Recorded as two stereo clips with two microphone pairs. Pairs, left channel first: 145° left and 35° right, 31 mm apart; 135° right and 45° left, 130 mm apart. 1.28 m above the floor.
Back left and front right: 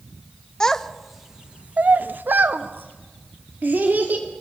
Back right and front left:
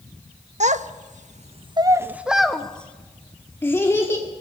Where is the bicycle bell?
I don't hear a bicycle bell.